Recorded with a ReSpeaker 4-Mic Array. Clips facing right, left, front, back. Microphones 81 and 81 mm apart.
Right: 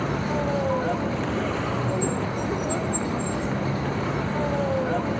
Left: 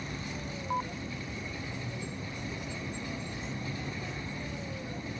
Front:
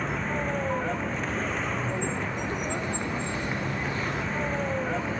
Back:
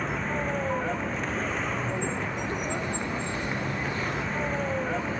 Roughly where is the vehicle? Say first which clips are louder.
Right 14 dB, even; right.